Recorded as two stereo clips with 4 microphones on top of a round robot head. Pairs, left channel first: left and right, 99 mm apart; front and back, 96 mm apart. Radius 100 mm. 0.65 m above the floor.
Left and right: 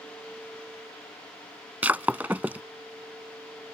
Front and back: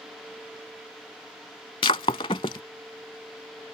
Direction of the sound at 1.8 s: 15° right.